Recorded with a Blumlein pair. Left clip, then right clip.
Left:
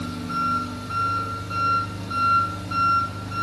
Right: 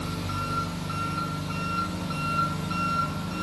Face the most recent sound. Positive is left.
turn(degrees=-55)